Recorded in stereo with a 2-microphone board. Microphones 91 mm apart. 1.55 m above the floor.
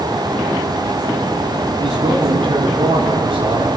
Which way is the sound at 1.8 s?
90° right.